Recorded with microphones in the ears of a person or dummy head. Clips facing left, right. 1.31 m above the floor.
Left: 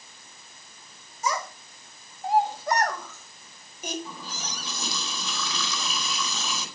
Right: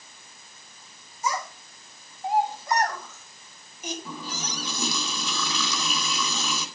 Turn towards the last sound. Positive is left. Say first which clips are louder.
# right 3 dB
turn(degrees=-60)  # may be behind; listen again after turning